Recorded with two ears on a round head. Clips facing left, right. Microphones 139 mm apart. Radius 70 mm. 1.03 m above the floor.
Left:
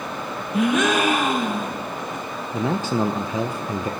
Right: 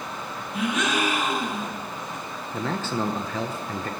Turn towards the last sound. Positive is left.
turn(degrees=10)  # may be behind; listen again after turning